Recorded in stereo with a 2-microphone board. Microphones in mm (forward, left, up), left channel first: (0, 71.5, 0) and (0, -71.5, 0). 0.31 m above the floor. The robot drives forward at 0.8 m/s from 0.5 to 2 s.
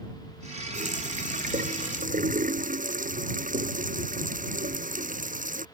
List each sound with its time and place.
0.7 s a running tap: 60° right (ahead or behind); by 5.7 s 65° right (ahead or behind)